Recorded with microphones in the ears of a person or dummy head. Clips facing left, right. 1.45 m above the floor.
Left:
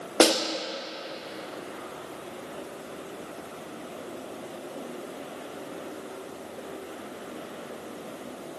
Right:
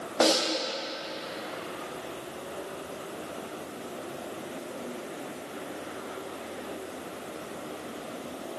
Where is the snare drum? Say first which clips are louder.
Left 3 dB; 55° left (ahead or behind), 2 m.